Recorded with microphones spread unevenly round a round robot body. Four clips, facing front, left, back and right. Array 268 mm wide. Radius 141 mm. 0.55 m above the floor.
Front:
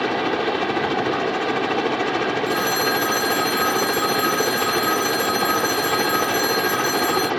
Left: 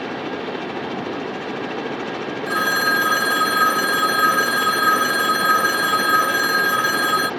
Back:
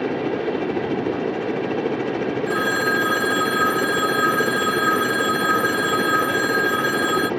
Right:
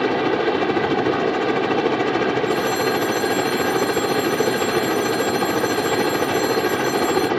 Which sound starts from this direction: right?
A helicopter, at 0.0 s.